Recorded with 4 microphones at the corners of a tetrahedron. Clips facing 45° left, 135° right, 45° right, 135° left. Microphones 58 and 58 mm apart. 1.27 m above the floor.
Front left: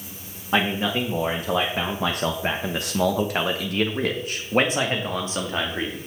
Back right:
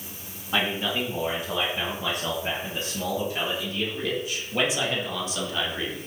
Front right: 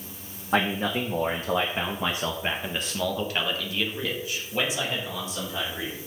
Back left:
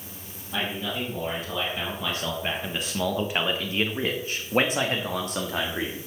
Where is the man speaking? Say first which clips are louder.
Front left 4 dB, front right 5 dB; 15° right, 1.9 m; by 6.0 s 105° left, 2.5 m.